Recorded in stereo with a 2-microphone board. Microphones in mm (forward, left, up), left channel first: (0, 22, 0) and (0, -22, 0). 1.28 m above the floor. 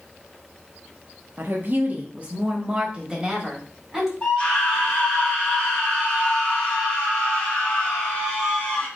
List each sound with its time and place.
1.4 s a woman speaking: 50° right (ahead or behind), 0.8 m; by 4.1 s 10° right (ahead or behind), 2.0 m
4.2 s a scream: 15° left (ahead or behind), 1.4 m